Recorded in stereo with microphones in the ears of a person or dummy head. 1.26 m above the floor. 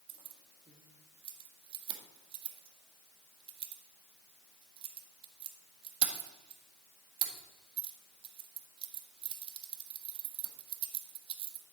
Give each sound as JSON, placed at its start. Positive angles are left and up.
{"t": 0.1, "sound": "keys jangling", "side_deg": -25, "distance_m": 1.5}